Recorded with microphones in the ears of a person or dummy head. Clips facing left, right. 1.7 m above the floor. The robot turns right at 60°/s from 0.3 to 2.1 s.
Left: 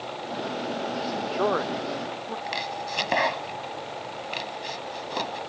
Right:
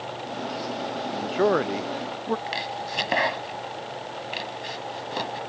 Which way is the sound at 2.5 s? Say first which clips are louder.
Even; 15° right (ahead or behind).